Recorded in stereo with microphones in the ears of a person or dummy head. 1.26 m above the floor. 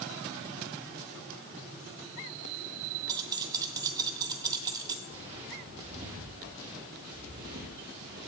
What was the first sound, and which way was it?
Keys jangling, 20° right (ahead or behind).